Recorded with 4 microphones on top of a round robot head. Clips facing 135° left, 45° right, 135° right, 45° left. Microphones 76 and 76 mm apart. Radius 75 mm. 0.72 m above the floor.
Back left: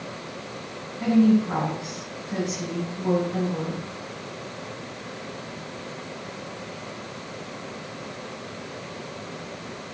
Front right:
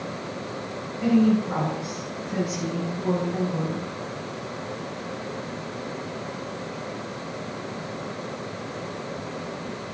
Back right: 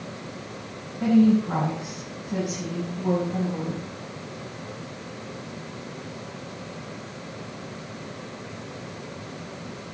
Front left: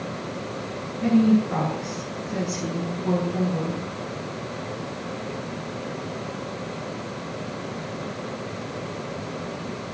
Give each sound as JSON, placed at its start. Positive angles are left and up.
{"t": 1.0, "sound": "a woman speaking", "azimuth_deg": -160, "distance_m": 8.0}